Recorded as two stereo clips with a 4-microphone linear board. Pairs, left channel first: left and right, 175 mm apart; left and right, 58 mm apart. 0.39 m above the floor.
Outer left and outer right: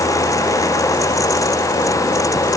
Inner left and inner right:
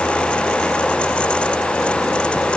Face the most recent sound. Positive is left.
No sound to turn to.